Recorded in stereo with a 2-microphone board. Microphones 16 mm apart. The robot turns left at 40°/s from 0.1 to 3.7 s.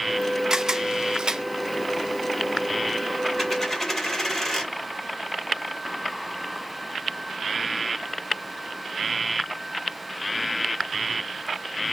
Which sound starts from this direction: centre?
A dropped coin, at 3.4 s.